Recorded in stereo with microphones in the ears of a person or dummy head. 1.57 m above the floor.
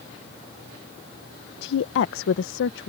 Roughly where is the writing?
I don't hear writing.